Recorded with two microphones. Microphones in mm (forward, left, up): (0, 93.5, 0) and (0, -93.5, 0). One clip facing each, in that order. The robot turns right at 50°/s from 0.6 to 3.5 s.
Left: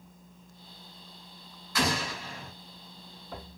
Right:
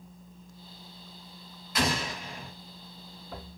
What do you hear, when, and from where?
1.8 s an explosion: 20° right (ahead or behind), 1.5 m